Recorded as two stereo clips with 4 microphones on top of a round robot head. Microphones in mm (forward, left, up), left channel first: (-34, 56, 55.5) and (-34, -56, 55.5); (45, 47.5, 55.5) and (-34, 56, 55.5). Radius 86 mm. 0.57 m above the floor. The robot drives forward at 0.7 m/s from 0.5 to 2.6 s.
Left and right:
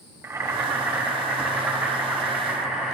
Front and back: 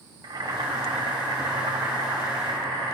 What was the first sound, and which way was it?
Boiling, 155° right.